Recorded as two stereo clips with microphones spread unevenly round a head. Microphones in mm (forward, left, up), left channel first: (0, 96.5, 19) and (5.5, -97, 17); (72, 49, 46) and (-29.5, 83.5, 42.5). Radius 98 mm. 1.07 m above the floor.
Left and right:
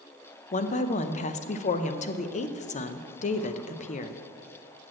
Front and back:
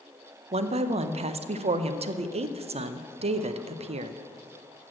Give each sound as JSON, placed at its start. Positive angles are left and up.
{"t": 0.5, "sound": "a woman speaking", "azimuth_deg": 145, "distance_m": 0.6}